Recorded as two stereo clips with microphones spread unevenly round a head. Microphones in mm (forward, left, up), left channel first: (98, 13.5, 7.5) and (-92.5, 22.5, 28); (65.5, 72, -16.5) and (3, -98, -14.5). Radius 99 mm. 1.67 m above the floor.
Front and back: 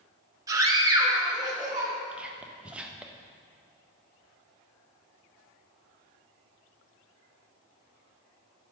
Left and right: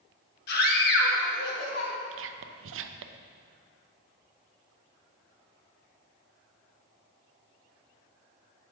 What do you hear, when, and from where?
0.5 s a scream: 105° left, 1.4 m; by 1.9 s 110° left, 2 m
2.1 s whispering: 100° right, 0.6 m